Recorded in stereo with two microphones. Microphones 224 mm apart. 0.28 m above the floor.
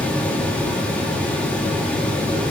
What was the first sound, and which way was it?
Only background noise.